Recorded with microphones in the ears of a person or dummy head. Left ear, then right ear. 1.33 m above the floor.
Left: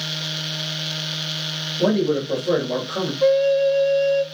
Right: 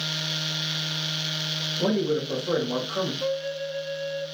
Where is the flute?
40° left (ahead or behind), 0.5 m.